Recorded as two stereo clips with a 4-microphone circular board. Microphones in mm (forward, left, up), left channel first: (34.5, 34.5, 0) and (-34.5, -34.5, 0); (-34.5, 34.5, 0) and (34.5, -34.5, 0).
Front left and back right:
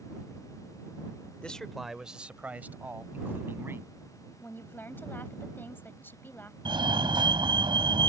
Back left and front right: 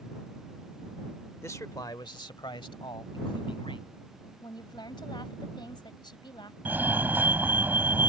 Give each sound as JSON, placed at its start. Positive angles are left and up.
{"t": 1.4, "sound": "a man speaking", "azimuth_deg": 110}
{"t": 4.4, "sound": "a woman speaking", "azimuth_deg": 110}
{"t": 6.7, "sound": "a fire alarm", "azimuth_deg": -115}